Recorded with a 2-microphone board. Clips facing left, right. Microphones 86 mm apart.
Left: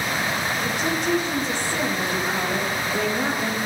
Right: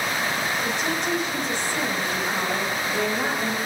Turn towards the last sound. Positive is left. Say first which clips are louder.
# left 2 dB
turn(degrees=0)  # may be behind; listen again after turning